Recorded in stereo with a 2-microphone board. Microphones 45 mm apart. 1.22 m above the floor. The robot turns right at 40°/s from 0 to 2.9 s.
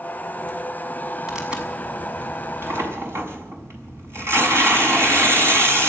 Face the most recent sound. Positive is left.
turn(degrees=-105)